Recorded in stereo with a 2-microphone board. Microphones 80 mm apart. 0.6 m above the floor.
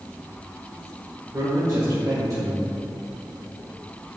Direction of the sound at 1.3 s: 45° right (ahead or behind).